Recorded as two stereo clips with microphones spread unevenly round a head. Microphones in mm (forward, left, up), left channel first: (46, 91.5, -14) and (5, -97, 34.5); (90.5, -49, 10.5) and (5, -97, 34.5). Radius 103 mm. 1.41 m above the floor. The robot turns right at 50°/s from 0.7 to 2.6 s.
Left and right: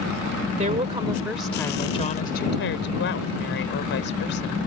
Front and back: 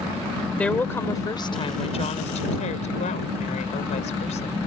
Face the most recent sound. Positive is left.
turn(degrees=45)